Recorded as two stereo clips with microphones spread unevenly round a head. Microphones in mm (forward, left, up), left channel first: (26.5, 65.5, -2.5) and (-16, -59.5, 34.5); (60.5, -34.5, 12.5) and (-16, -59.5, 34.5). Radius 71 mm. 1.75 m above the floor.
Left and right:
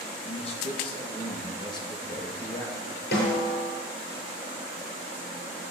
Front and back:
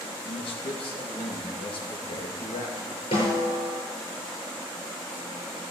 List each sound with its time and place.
0.2 s a man speaking: 25° left, 2.5 m; by 3.0 s 5° left, 3.5 m
3.1 s a snare drum: 55° left, 7.5 m